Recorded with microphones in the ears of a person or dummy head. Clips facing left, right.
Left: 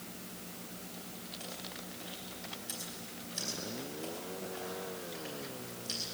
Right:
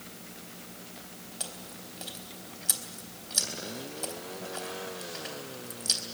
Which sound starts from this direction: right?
Chewing, at 1.4 s.